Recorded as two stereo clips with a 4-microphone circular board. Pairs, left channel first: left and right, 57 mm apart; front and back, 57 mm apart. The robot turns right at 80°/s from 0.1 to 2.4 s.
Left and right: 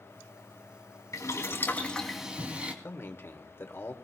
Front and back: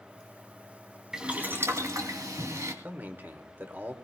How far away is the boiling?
About 2.5 m.